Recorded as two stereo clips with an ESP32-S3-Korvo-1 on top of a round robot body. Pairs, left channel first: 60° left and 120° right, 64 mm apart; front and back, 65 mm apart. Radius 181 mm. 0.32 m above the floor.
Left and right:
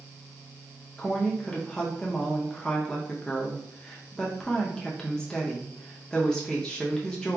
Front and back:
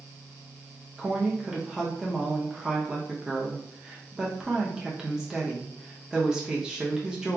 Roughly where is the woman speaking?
Behind left.